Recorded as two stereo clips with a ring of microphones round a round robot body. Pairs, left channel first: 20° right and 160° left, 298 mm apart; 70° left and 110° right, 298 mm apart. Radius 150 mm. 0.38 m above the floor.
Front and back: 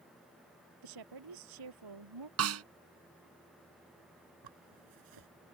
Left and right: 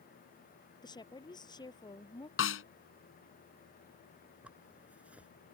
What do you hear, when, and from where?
0.8 s a woman speaking: 145° left
2.4 s a snare drum: 115° left
4.4 s a zipper: 160° left